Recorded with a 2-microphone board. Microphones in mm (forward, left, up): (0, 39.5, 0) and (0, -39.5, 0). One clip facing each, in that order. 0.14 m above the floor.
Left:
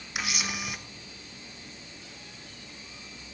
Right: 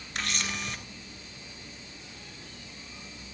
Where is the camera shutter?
10° left (ahead or behind), 0.9 m.